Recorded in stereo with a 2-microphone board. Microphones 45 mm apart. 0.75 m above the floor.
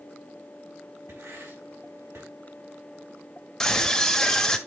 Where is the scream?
10° left (ahead or behind), 1.3 m.